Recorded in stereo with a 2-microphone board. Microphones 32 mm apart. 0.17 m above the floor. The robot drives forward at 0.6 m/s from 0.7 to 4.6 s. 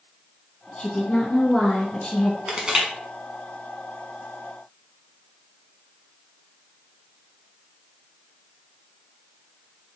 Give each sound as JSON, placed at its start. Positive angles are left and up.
{"t": 0.8, "sound": "a woman speaking", "side_deg": 30, "distance_m": 2.0}
{"t": 2.5, "sound": "crushing", "side_deg": -25, "distance_m": 1.1}